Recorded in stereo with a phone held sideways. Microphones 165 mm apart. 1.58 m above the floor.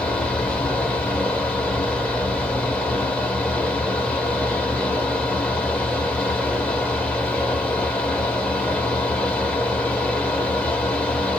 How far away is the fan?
About 1.1 m.